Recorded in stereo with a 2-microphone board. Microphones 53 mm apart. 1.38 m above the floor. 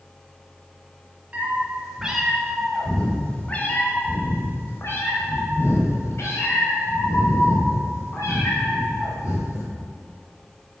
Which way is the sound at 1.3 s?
25° right (ahead or behind).